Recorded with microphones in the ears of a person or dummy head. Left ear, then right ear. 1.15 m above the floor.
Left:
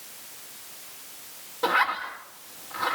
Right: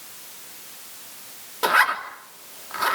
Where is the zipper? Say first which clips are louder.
Right 4 dB; 70° right (ahead or behind), 3 m.